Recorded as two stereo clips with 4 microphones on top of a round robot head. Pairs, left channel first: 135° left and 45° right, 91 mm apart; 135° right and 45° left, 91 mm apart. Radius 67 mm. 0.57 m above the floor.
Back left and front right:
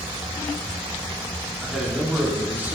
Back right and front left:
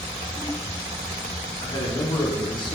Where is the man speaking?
135° right, 1.6 m; by 2.8 s 110° right, 2.0 m.